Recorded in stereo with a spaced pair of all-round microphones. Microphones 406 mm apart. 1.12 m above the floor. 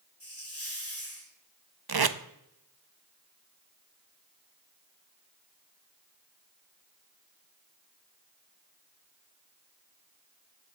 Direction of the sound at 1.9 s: 65° right (ahead or behind).